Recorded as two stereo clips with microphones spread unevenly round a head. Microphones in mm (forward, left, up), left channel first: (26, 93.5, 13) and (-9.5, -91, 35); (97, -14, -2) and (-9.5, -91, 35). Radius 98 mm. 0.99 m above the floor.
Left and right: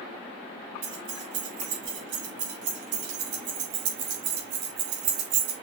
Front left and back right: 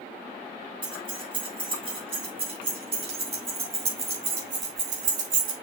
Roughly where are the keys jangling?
Right.